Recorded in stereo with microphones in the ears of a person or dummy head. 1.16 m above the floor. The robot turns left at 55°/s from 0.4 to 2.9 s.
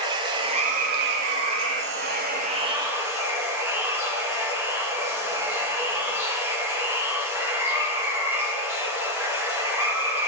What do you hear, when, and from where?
0.0 s running water: 25° right, 1.2 m; by 10.3 s 165° right, 1.2 m